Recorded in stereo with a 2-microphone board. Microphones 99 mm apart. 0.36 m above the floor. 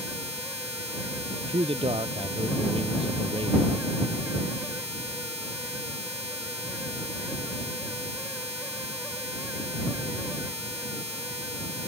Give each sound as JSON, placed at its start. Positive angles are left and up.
{"t": 1.5, "sound": "a man speaking", "side_deg": -70}